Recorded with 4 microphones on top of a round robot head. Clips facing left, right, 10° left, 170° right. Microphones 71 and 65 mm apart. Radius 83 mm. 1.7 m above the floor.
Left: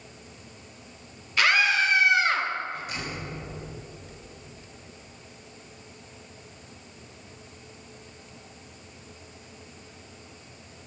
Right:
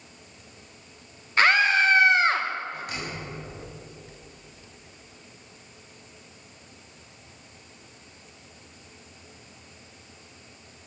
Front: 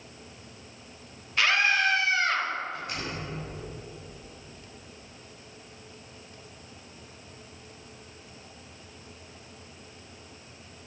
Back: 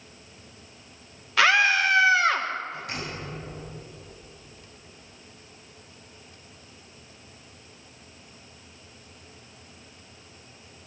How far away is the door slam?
About 10 m.